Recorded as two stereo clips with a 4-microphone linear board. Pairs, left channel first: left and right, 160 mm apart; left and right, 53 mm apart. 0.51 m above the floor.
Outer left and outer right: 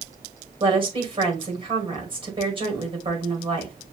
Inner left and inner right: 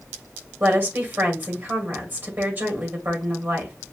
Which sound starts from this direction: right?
A woman speaking, at 0.6 s.